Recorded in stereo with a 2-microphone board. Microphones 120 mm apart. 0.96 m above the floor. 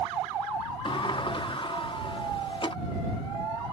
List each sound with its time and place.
0.8 s a sliding door: 45° left (ahead or behind)